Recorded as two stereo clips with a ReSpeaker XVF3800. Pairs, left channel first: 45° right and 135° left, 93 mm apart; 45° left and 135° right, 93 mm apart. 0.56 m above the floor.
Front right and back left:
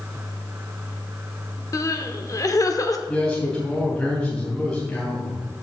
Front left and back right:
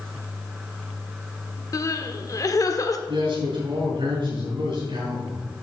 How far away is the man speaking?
About 3 m.